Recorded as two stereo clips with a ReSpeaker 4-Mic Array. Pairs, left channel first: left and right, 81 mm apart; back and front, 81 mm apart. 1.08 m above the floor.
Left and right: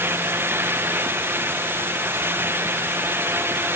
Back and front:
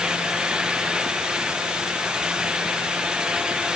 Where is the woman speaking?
No woman speaking in this recording.